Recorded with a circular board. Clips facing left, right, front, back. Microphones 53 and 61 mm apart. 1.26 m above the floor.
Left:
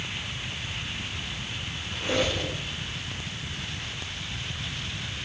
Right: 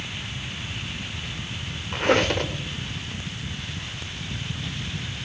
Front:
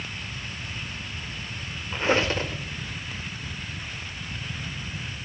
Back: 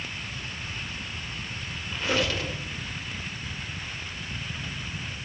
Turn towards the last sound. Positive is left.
turn(degrees=-60)